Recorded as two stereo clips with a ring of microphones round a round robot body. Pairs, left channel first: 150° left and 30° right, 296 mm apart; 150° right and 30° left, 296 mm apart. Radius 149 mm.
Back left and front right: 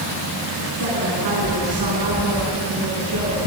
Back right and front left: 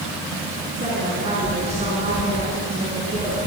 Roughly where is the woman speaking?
Ahead right.